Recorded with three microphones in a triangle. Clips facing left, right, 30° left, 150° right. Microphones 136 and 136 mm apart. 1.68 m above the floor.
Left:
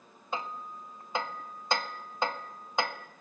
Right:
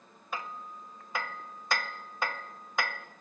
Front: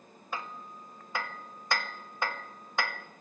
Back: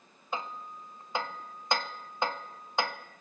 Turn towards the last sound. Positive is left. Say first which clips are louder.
# left 3 dB, back 2 dB
turn(degrees=150)